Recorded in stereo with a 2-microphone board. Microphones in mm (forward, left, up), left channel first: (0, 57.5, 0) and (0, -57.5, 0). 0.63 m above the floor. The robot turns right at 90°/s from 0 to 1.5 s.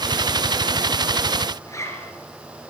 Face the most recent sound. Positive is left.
turn(degrees=25)  # may be behind; listen again after turning